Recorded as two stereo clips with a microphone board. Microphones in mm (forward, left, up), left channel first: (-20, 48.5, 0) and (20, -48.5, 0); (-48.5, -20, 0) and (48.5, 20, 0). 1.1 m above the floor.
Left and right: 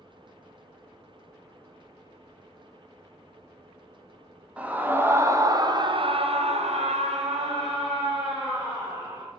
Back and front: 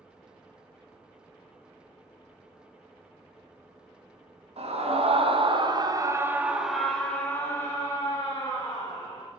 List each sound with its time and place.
4.6 s a scream: 10° left, 1.6 m; by 9.3 s 110° right, 2.5 m